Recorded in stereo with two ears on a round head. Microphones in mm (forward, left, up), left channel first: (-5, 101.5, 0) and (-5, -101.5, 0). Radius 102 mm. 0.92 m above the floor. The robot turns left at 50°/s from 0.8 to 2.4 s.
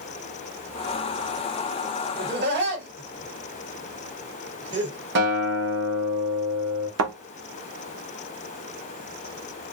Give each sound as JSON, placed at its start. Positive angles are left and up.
{"t": 2.2, "sound": "laughter", "side_deg": -50, "distance_m": 1.5}
{"t": 5.2, "sound": "a guitar", "side_deg": -50, "distance_m": 1.0}
{"t": 7.0, "sound": "a thud", "side_deg": -65, "distance_m": 0.6}